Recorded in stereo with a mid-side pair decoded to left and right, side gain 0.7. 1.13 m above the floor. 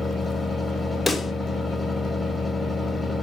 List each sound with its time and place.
0.0 s a fan: 15° left, 0.7 m
1.1 s a pop: 15° left, 0.6 m